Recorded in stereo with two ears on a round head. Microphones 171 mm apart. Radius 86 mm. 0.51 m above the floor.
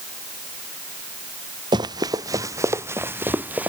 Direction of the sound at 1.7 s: 25° right (ahead or behind).